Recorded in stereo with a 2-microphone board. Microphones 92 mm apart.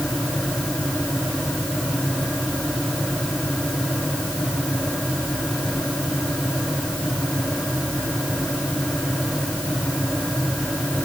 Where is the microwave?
I don't hear a microwave.